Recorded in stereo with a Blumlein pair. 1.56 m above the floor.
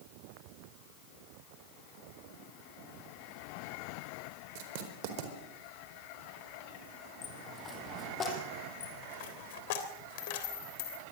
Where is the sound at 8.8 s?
50° left, 3.5 m.